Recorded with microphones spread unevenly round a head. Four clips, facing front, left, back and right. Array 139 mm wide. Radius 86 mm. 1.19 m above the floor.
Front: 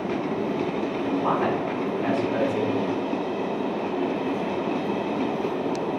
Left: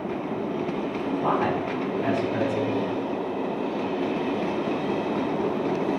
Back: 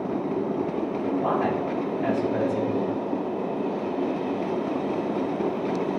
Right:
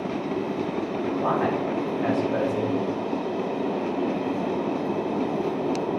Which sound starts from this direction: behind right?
A man speaking, at 1.2 s.